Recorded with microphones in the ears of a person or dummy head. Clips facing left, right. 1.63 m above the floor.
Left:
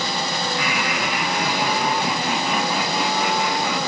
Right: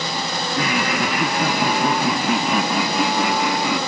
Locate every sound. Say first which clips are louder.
0.6 s laughter: right 4 dB; 35° right (ahead or behind); by 3.8 s 65° right (ahead or behind)